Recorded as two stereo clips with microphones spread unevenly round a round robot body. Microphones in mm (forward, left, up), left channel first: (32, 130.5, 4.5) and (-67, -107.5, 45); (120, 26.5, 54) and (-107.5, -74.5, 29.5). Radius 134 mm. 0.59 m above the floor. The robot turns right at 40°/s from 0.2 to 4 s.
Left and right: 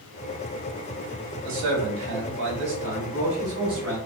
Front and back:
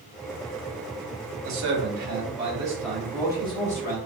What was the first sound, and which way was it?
A man speaking, 130° right.